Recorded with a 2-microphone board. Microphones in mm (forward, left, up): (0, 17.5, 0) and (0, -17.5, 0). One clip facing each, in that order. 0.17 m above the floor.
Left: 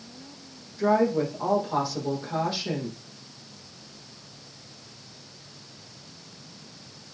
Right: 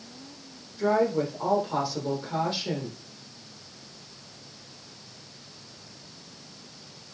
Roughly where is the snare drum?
No snare drum in this recording.